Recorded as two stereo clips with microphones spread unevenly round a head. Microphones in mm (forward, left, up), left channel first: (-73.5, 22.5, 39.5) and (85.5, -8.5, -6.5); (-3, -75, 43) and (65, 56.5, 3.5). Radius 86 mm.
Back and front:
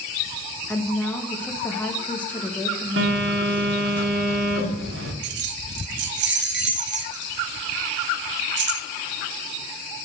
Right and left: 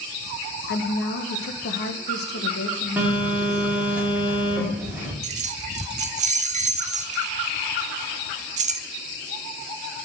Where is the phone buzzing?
20° right, 2 m.